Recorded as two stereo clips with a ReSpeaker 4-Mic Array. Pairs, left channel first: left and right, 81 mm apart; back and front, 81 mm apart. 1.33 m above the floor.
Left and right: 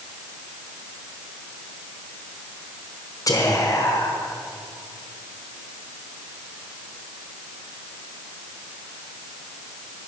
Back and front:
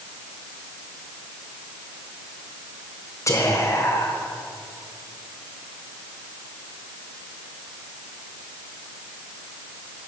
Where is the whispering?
130° left, 1.1 m.